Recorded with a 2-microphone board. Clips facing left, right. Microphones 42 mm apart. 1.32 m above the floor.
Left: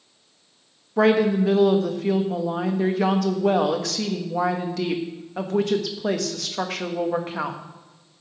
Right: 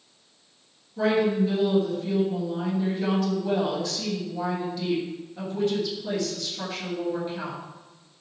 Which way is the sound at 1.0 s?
85° left.